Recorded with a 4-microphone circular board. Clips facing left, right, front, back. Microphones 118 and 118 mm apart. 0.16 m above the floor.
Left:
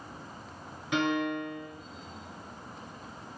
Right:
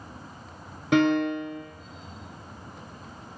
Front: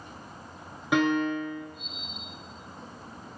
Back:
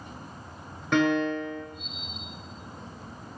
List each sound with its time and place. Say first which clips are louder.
0.9 s a piano: right 7 dB, back 1 dB; 80° right, 0.6 m